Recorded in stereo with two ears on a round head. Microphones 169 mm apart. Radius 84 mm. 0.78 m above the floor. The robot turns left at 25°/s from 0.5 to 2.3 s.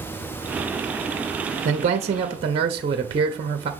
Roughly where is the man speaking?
Right.